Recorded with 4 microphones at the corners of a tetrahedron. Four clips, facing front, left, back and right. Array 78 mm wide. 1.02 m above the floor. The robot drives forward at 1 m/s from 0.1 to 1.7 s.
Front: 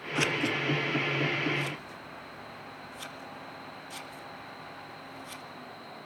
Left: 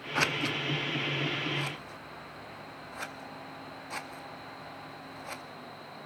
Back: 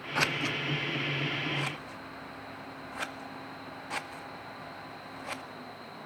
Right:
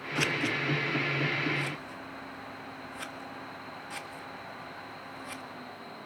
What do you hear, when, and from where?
0.1 s scissors: 125° left, 0.8 m; by 5.4 s 165° left, 2.0 m